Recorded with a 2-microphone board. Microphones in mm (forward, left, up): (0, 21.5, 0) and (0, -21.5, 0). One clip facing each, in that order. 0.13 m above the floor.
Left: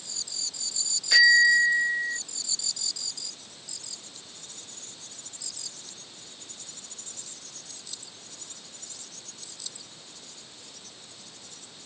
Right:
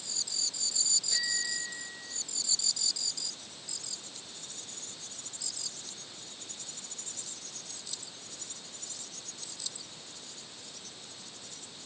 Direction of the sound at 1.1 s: 85° left.